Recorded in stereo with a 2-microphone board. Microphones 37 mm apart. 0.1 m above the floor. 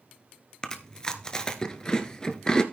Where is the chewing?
20° left (ahead or behind), 1.1 m.